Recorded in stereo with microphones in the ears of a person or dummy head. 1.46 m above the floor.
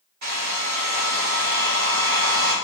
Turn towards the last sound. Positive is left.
turn(degrees=-65)  # may be behind; listen again after turning